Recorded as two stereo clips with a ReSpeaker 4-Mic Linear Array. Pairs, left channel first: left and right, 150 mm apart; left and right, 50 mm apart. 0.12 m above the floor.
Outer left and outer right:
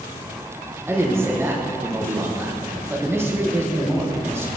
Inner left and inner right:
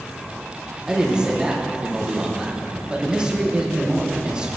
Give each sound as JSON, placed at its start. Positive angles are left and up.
{"t": 0.9, "sound": "a man speaking", "side_deg": -15, "distance_m": 5.5}